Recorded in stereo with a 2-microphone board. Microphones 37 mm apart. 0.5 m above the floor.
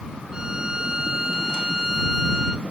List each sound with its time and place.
0.3 s a violin: 20° right (ahead or behind)